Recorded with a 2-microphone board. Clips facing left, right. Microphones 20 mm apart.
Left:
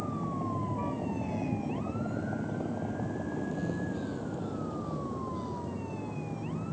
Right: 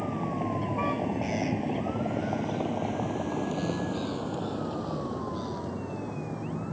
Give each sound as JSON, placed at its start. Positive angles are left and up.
{"t": 0.0, "sound": "a vehicle", "side_deg": -60}